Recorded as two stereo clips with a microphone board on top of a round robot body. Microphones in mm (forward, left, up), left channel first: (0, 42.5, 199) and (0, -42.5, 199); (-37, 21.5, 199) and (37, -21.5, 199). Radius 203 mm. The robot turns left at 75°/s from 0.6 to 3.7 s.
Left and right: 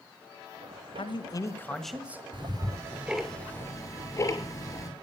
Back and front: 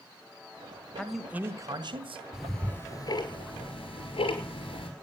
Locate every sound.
1.0 s a man speaking: 70° left, 1.6 m; by 2.2 s 25° right, 1.6 m
2.3 s ticking: 115° right, 5.5 m; by 4.9 s 145° left, 5.5 m